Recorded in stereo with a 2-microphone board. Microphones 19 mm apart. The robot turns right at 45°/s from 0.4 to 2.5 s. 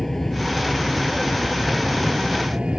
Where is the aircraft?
160° left; by 2.8 s 105° right.